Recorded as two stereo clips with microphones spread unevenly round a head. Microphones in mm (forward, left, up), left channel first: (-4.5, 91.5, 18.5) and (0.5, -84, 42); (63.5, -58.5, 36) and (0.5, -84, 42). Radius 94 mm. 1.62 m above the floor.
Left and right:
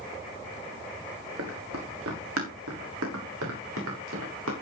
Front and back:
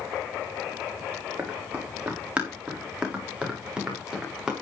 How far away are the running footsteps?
About 5.5 m.